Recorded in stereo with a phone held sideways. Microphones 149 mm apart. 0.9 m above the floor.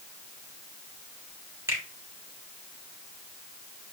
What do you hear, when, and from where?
1.7 s a finger snap: 20° right (ahead or behind), 4 m